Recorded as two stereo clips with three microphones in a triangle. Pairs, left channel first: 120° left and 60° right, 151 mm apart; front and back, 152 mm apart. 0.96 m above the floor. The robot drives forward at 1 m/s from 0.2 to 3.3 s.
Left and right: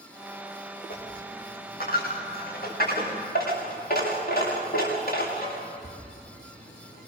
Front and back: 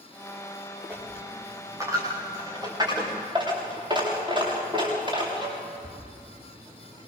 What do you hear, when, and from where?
0.9 s a dropped coin: 100° left, 6.5 m; by 7.1 s 120° left, 7.5 m